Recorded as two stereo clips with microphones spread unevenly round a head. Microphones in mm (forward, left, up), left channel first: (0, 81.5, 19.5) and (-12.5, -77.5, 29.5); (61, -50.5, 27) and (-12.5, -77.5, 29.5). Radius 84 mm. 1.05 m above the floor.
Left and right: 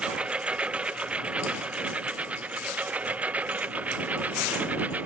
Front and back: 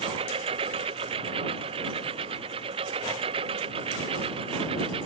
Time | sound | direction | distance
0.0 | a lawn mower | straight behind | ?